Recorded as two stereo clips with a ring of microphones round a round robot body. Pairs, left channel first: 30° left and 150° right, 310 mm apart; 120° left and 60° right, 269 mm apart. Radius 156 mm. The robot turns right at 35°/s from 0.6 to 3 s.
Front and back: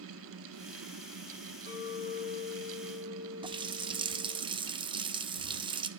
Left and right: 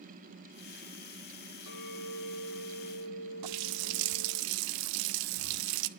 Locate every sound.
1.7 s a clink: 95° left, 8 m; by 4.4 s 145° left, 8 m
3.4 s a running tap: 75° right, 0.5 m